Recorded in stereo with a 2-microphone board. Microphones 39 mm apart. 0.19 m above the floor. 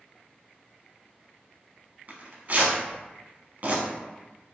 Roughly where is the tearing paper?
Right.